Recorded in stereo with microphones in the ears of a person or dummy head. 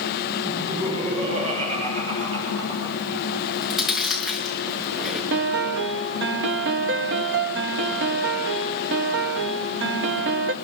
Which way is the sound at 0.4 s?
35° right (ahead or behind).